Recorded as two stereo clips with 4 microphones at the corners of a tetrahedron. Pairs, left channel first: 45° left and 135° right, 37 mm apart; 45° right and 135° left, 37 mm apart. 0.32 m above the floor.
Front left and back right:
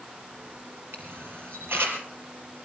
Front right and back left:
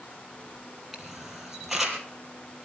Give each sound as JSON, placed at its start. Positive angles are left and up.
{"t": 0.9, "sound": "a camera shutter", "azimuth_deg": -145, "distance_m": 4.0}